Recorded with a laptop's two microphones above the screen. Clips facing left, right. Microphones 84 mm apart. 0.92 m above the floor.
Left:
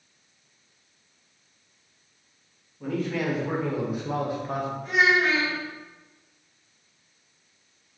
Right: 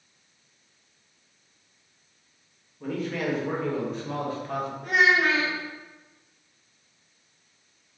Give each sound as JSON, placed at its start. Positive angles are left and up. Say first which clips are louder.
{"t": 2.8, "sound": "a man speaking", "louder": "left 2 dB", "side_deg": 0, "distance_m": 1.4}
{"t": 4.8, "sound": "a child speaking", "louder": "right 1 dB", "side_deg": -55, "distance_m": 1.0}